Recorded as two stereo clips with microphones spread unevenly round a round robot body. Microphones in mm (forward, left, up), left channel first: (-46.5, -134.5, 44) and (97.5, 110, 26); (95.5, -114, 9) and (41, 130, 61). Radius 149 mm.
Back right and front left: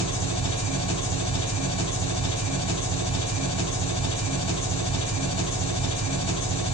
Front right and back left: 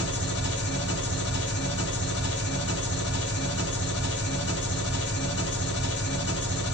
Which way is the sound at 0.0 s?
50° right.